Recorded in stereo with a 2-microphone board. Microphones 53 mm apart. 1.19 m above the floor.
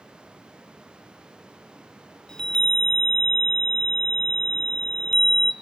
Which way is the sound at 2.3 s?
15° left (ahead or behind).